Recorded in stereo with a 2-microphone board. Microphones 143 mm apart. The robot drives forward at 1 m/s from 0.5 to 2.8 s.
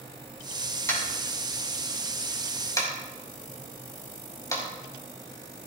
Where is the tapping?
15° left (ahead or behind), 6.5 m; by 4.6 s 20° left (ahead or behind), 5 m.